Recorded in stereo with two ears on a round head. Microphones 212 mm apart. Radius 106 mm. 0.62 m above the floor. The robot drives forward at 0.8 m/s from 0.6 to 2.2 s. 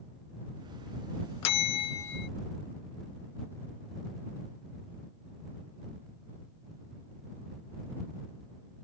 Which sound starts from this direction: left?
A bell, at 1.4 s.